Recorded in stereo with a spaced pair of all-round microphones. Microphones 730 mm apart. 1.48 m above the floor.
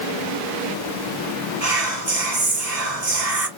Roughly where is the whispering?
Right.